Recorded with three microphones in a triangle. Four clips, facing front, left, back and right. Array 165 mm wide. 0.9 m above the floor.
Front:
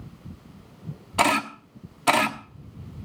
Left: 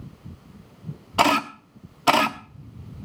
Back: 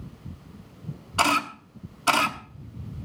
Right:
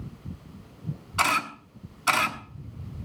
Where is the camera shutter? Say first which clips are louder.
Left 6 dB, front 1 dB; 70° left, 1.2 m.